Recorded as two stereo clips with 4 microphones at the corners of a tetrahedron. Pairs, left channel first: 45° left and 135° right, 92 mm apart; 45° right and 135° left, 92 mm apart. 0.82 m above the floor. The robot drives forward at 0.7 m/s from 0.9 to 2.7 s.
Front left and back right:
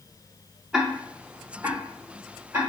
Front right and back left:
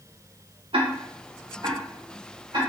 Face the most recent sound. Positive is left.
turn(degrees=170)